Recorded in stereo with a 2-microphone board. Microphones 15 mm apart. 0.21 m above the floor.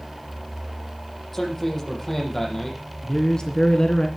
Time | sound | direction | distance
1.3 | a man speaking | 20° left (ahead or behind) | 7.5 m
3.0 | a man speaking | 50° left (ahead or behind) | 2 m